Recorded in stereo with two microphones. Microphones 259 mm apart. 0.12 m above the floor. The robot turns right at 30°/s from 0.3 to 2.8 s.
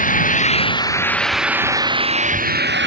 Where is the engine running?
150° left; by 2.9 s 135° right.